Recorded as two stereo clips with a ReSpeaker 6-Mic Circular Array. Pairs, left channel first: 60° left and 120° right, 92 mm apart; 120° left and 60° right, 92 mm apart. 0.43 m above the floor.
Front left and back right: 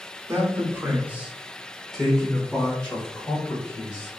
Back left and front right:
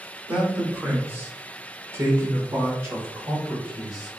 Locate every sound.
0.3 s a man speaking: 125° right, 1.0 m; by 4.1 s 5° right, 2.0 m